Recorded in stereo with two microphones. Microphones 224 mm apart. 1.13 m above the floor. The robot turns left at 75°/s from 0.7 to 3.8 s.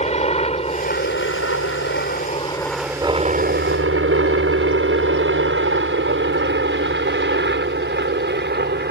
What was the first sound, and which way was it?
A helicopter, 30° left (ahead or behind).